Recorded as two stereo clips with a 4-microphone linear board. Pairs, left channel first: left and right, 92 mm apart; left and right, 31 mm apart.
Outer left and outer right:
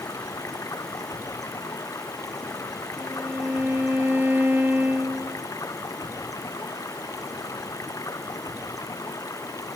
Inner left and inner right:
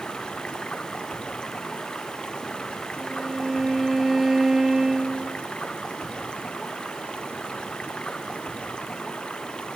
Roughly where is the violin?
Centre.